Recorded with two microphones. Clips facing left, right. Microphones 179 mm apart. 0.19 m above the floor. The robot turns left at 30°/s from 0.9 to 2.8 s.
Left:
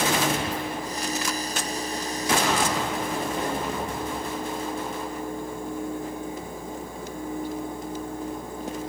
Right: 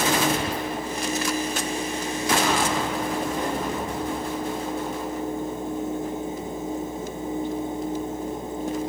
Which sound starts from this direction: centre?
Whispering, at 0.3 s.